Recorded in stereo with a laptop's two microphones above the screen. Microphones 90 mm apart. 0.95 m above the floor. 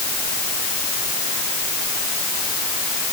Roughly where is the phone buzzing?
No phone buzzing in this recording.